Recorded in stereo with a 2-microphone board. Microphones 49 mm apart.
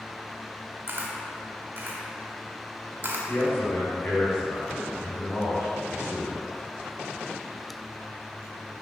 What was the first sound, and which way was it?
A camera shutter, 40° right (ahead or behind).